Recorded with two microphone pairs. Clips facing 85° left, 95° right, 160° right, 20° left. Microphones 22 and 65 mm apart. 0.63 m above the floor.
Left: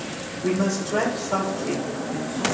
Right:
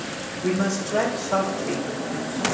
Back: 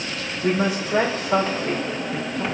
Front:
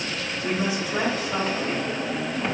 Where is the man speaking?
175° left, 2.5 m.